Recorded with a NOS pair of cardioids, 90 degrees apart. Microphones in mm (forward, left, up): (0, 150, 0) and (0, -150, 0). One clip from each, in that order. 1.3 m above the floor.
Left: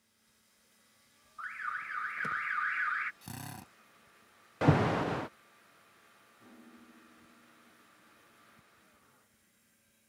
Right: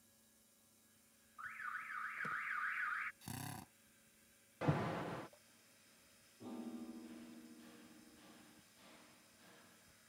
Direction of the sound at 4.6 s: 65° left.